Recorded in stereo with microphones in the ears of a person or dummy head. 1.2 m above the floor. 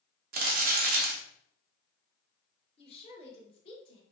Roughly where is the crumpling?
Right.